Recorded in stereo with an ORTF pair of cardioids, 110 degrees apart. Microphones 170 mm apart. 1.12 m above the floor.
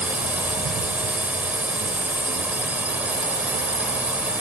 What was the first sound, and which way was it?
A drone, 10° right.